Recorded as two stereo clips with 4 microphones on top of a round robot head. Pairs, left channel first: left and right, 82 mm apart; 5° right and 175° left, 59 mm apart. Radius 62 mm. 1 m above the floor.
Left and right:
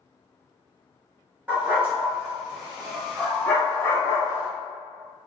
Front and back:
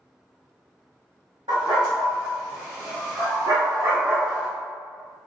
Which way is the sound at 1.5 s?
155° right.